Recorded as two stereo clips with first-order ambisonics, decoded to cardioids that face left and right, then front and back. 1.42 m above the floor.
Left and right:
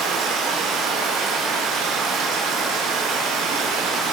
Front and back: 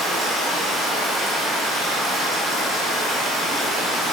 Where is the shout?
No shout in this recording.